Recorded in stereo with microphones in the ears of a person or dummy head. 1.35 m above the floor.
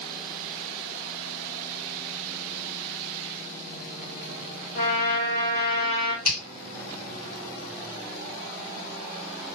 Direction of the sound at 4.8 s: 85° left.